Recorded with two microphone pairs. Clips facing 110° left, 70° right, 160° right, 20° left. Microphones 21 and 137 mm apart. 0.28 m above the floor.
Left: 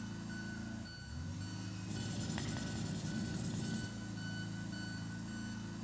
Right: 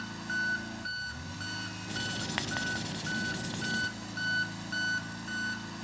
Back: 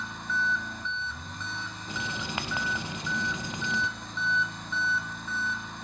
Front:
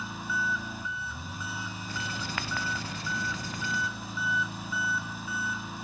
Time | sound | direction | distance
0.0 | an engine running | 65° right | 0.8 m
1.9 | writing | 95° right | 0.6 m